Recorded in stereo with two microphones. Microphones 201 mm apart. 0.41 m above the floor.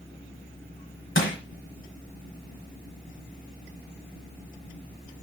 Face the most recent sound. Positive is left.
turn(degrees=75)  # may be behind; listen again after turning